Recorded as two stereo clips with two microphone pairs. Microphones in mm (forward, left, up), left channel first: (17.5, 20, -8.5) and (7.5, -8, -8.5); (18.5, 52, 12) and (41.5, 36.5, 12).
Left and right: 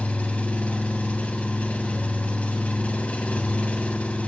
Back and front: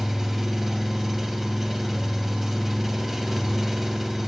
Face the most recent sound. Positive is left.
turn(degrees=50)